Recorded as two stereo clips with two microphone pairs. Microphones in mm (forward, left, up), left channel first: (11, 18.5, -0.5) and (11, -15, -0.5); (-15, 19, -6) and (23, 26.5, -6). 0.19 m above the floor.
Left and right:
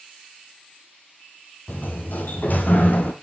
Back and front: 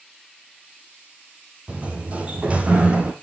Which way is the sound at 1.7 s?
70° left.